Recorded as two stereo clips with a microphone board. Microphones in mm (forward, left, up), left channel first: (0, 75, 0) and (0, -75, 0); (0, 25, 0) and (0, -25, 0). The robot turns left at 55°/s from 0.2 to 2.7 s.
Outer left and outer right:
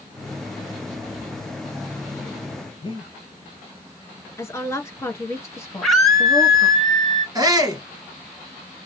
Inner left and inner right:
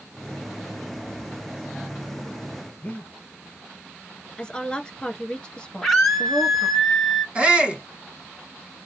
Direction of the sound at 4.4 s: 20° left (ahead or behind).